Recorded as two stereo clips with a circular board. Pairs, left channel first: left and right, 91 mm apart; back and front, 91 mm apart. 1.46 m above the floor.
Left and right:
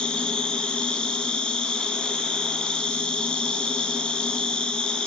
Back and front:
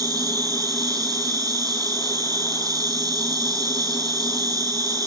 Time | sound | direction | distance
0.0 | an insect | 15° left | 1.8 m